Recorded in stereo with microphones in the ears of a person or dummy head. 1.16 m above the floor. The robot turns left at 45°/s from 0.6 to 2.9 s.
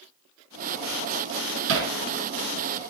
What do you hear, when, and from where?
1.7 s hammering: 70° right (ahead or behind), 4 m; by 1.9 s 75° right (ahead or behind), 4 m